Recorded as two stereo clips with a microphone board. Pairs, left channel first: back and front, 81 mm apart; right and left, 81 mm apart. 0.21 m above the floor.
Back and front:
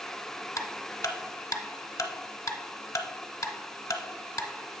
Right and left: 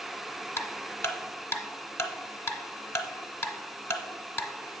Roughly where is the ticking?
Behind right.